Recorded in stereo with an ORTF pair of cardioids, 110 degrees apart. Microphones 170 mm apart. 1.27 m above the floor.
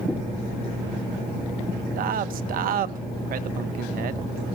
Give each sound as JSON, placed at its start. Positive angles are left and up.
{"t": 0.1, "sound": "knocking", "azimuth_deg": 5, "distance_m": 6.0}
{"t": 2.0, "sound": "a man speaking", "azimuth_deg": -60, "distance_m": 0.9}